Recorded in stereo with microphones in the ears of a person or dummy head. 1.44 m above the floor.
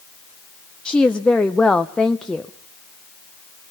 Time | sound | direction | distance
0.8 | a woman speaking | centre (ahead or behind) | 0.6 m